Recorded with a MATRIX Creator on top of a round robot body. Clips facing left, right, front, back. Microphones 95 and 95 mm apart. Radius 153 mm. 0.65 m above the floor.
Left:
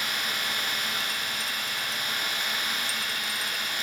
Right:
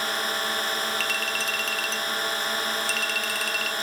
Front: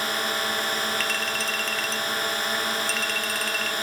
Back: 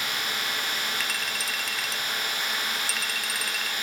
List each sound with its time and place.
0.0 s a drone: 45° right
1.0 s a clink: 95° right